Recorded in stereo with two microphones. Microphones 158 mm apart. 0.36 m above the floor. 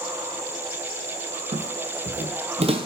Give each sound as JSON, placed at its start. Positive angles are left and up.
{"t": 1.5, "sound": "footsteps", "side_deg": -55, "distance_m": 0.7}